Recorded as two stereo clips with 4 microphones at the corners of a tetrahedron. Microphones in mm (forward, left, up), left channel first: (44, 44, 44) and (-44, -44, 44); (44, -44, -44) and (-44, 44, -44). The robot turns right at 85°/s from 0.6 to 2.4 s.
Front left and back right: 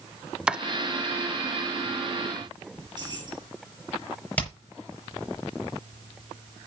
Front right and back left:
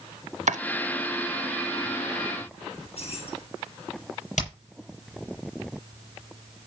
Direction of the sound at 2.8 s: 80° right.